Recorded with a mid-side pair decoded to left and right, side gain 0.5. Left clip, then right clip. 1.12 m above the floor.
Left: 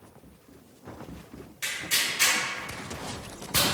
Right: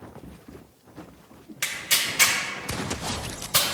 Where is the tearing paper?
60° right, 1.9 m.